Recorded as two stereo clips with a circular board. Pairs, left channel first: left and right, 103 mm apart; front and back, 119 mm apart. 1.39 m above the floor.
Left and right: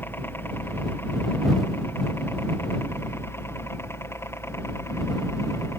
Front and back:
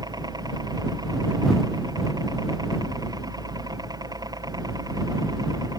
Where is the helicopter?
150° left; by 5.8 s 140° left.